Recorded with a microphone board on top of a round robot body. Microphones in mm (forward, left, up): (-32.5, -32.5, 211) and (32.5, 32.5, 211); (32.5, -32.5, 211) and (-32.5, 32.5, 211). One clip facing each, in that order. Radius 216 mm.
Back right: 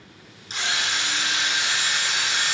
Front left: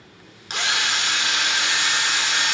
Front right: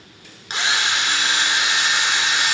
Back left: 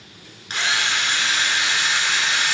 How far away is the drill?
About 1.2 m.